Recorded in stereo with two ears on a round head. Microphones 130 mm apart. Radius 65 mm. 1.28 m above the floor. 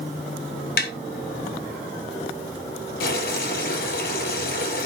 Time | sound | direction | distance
0.8 | tapping | 70° left (ahead or behind) | 1.5 m
3.0 | boiling | 75° left (ahead or behind) | 7 m